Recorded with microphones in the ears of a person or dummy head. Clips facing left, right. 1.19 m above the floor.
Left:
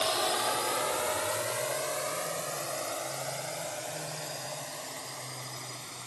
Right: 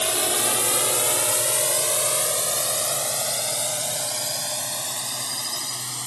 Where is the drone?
35° right (ahead or behind); by 6.1 s 85° right.